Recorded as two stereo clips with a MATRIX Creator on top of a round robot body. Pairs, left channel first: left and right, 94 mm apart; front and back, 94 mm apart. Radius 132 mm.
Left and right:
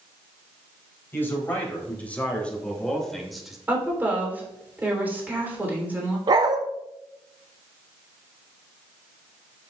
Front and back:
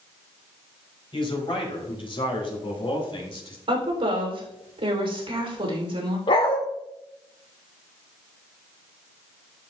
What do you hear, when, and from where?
1.1 s a man speaking: 25° left, 4 m; by 3.6 s 5° right, 2.5 m
3.7 s a woman speaking: 160° right, 3 m
6.3 s a dog barking: 45° right, 0.6 m